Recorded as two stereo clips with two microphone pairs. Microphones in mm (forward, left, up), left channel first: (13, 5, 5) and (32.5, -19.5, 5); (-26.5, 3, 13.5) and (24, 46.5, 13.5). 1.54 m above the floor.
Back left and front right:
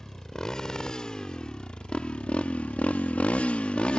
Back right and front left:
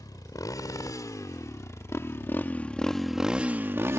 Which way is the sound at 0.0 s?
160° right.